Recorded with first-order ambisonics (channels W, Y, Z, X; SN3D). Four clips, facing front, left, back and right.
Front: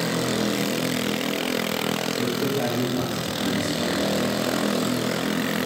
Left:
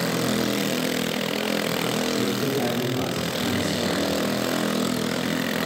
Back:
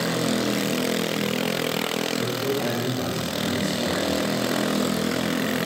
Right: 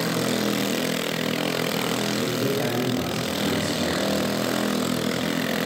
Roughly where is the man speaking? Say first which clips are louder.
Even, front 1 dB; ahead right.